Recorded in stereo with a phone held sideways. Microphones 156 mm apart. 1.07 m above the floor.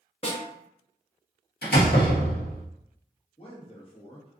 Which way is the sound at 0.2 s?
35° left (ahead or behind).